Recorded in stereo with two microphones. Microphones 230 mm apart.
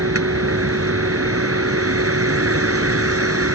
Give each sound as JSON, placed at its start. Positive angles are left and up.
{"t": 0.0, "sound": "a vehicle", "side_deg": -85}